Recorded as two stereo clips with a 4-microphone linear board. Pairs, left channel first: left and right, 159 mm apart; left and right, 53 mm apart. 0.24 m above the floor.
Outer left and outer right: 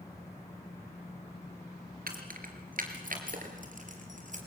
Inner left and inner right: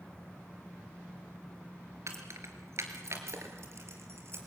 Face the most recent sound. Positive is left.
turn(degrees=-50)  # may be behind; listen again after turning